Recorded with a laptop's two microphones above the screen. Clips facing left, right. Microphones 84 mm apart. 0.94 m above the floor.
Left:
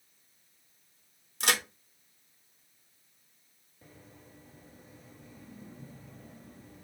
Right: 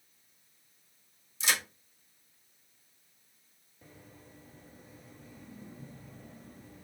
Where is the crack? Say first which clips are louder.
Left 3 dB; 55° left (ahead or behind), 0.7 m.